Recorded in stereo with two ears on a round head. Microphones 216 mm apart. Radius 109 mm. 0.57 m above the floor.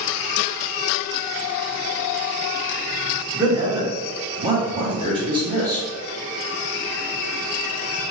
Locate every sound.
3.3 s a man speaking: 20° right (ahead or behind), 1.2 m; by 5.9 s 15° right (ahead or behind), 1.1 m